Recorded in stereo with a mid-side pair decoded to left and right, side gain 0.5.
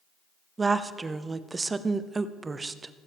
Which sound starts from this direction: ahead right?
A woman speaking, at 0.6 s.